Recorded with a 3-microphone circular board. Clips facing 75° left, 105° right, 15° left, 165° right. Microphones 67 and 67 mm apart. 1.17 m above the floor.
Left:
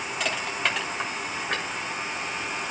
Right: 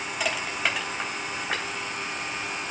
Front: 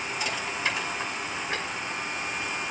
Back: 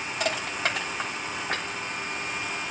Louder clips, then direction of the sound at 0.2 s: Even, back 3 dB; 170° left.